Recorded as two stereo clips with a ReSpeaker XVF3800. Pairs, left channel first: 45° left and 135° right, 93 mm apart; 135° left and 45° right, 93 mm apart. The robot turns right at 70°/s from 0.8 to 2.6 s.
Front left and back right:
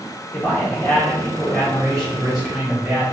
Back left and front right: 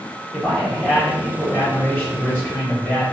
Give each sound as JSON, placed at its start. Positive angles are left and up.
{"t": 0.3, "sound": "a man speaking", "azimuth_deg": 40, "distance_m": 1.4}